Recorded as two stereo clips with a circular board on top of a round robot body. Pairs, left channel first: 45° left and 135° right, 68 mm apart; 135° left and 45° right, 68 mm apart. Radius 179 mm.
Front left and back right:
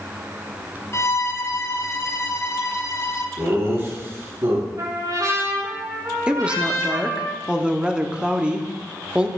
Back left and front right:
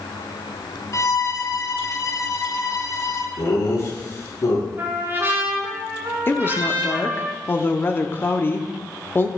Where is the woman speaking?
160° left, 1.6 m.